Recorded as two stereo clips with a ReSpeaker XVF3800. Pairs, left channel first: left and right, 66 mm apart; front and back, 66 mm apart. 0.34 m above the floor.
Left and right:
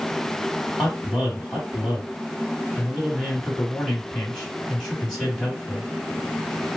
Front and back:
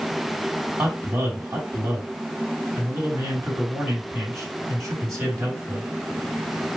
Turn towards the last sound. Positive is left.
turn(degrees=165)